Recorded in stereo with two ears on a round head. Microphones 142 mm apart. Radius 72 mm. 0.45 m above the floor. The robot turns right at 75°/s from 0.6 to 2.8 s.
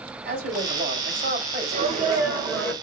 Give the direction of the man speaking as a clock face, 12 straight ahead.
4 o'clock.